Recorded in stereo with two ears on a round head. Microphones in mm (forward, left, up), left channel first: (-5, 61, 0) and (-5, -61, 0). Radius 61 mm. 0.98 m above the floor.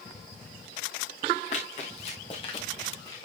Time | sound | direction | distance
1.5 | running footsteps | 50° left (ahead or behind) | 4.5 m